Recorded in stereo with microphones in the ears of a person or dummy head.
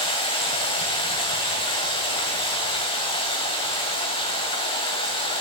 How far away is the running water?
About 2 m.